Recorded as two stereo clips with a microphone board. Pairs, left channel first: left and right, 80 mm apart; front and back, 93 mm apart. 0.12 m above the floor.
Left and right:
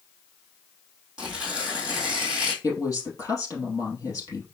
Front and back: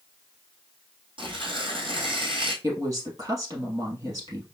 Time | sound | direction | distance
1.2 | tearing paper | 170° right | 1.7 m
2.6 | a woman speaking | 135° left | 2.5 m